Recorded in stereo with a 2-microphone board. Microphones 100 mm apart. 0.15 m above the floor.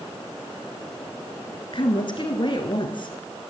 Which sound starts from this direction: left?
A woman speaking, at 1.7 s.